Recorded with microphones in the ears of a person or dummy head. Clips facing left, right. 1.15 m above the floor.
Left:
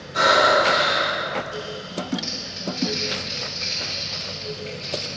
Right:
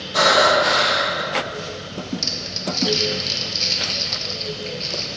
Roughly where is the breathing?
Right.